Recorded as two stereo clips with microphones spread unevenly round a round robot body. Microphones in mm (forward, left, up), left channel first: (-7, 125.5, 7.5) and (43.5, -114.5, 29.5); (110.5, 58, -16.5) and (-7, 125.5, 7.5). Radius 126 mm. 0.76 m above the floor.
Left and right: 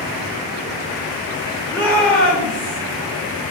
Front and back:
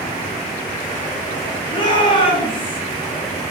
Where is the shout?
20° left, 4 m; by 2.8 s 15° left, 3 m.